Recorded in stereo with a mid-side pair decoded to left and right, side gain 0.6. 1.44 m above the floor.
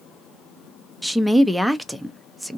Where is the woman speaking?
Straight ahead, 0.6 m.